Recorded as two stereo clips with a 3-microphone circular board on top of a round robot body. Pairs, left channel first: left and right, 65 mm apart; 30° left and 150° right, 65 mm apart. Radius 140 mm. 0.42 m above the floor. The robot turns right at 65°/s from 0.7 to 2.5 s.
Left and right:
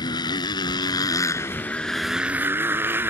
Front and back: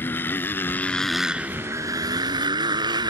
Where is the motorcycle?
90° left; by 3.1 s 150° right.